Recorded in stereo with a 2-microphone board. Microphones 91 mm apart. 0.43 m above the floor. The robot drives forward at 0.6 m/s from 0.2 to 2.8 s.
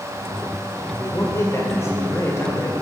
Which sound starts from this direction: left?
A man speaking, at 0.9 s.